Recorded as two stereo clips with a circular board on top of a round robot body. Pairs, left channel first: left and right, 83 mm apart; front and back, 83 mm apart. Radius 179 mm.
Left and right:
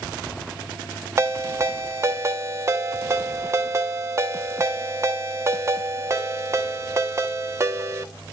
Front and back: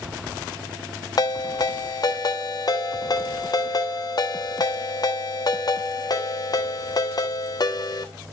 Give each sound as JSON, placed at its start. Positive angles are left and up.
{"t": 1.2, "sound": "a ringtone", "azimuth_deg": -35, "distance_m": 1.4}